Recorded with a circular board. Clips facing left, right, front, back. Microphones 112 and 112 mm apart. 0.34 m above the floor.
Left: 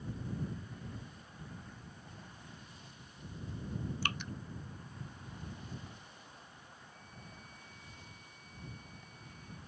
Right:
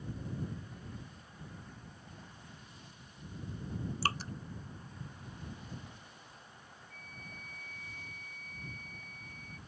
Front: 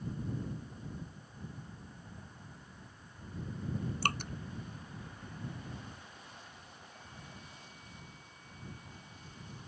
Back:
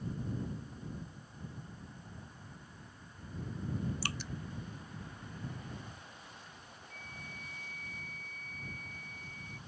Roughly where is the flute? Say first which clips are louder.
Right 3 dB, back 2 dB; right.